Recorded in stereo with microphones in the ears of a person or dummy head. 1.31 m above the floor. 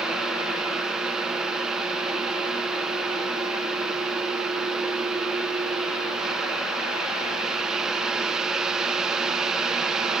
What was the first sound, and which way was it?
A fan, centre (ahead or behind).